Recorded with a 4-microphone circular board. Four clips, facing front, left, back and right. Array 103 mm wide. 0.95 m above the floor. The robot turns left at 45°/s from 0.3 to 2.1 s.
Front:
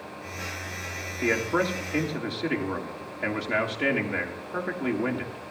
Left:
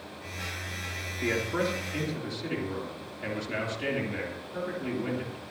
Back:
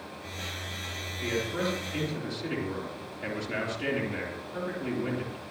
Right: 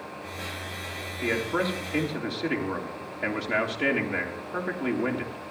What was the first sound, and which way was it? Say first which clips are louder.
A man speaking: right 2 dB, front 5 dB; 5° right.